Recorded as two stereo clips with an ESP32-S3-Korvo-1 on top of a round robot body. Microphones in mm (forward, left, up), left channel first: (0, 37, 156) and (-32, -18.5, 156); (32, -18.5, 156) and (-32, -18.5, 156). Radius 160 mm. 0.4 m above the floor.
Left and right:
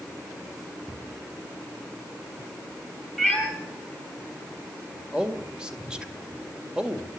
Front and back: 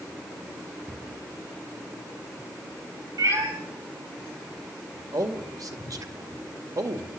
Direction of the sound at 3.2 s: 155° left.